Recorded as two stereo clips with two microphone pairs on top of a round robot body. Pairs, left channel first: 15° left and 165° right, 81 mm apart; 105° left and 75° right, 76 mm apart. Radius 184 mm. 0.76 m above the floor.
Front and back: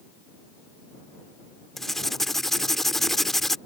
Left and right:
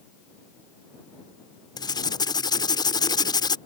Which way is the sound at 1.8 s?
100° left.